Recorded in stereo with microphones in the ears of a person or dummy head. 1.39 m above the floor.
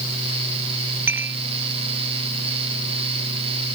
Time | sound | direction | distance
1.1 | dishes clattering | 10° right (ahead or behind) | ?